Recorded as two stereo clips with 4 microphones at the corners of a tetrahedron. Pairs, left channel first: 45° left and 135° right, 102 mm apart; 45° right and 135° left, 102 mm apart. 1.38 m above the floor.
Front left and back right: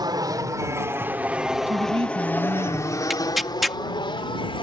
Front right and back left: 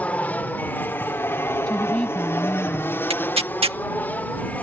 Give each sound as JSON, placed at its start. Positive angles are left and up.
{"t": 0.0, "sound": "an aircraft", "azimuth_deg": -115}
{"t": 1.7, "sound": "a woman speaking", "azimuth_deg": -125}
{"t": 3.1, "sound": "tearing paper", "azimuth_deg": 135}